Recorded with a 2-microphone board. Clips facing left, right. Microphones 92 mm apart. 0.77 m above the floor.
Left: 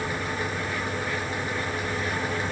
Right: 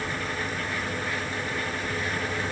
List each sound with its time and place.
Only background noise.